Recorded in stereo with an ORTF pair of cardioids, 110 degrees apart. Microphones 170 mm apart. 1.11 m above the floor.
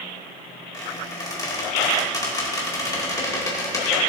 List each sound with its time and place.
0.7 s a squeak: 20° left, 2.5 m